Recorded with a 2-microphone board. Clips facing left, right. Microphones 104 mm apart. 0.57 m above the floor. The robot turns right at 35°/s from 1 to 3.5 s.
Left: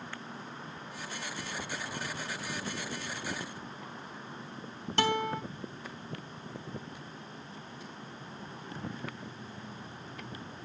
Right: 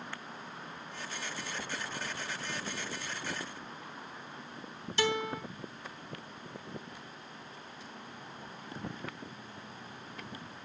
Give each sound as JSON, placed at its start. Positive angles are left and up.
{"t": 5.0, "sound": "a guitar", "side_deg": 60, "distance_m": 2.5}